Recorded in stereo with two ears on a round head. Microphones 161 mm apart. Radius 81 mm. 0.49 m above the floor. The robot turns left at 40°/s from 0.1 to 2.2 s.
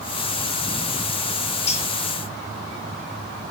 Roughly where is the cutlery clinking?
Left.